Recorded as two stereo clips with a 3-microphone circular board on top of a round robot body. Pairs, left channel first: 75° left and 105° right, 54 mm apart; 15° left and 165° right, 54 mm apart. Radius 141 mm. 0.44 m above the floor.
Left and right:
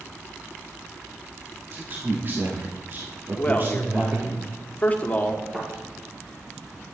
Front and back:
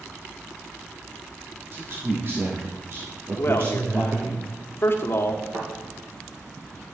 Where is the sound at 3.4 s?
25° left, 1.6 m.